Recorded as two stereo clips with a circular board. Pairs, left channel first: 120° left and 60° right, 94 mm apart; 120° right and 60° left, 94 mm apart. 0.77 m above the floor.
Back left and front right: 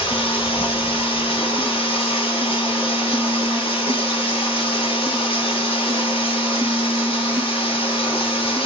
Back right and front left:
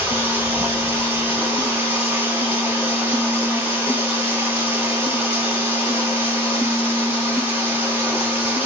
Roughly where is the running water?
Behind left.